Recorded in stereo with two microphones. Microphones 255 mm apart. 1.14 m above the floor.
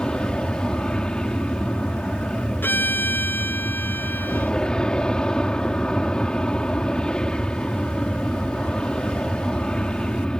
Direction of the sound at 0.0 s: 5° left (ahead or behind).